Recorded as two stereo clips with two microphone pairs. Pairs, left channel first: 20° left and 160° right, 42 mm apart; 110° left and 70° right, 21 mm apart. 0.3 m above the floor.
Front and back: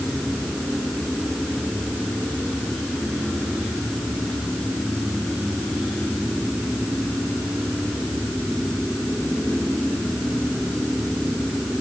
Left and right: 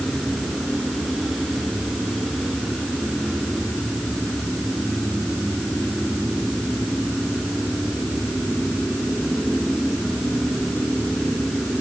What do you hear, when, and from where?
Only background noise.